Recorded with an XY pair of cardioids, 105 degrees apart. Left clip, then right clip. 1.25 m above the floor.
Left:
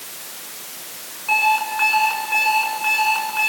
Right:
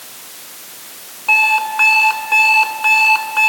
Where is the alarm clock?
60° right, 8.5 m.